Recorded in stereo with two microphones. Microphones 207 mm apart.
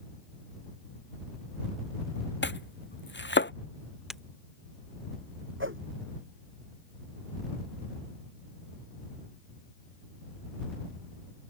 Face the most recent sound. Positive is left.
turn(degrees=-80)